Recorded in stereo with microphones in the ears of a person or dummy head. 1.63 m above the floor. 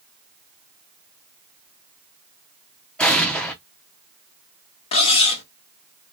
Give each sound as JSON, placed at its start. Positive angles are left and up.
{"t": 3.0, "sound": "an explosion", "side_deg": 0, "distance_m": 0.7}
{"t": 4.9, "sound": "cutlery clinking", "side_deg": 30, "distance_m": 0.9}